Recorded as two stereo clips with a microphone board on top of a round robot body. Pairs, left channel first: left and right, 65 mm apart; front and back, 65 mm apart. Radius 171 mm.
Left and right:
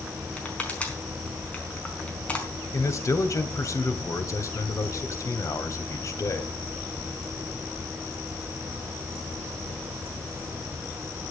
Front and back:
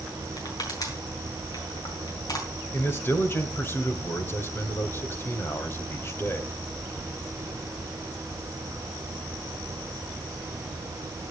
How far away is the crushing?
About 4.5 m.